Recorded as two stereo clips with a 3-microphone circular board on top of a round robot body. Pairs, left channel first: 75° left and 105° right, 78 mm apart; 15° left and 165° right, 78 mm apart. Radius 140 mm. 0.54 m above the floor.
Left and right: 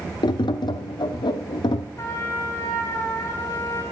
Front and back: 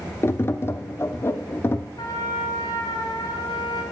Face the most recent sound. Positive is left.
turn(degrees=35)